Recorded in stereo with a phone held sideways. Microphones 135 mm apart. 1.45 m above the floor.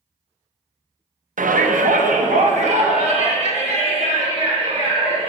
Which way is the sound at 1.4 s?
75° right (ahead or behind).